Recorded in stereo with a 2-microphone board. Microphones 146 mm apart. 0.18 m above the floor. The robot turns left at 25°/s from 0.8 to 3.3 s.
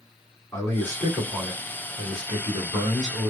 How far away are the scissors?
I don't hear scissors.